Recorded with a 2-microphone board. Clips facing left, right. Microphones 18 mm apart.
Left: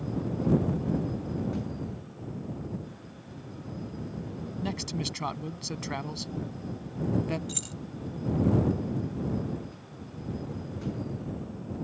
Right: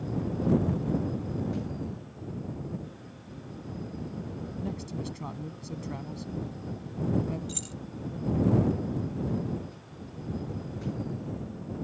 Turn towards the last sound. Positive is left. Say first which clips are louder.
# left 1 dB
turn(degrees=20)  # may be behind; listen again after turning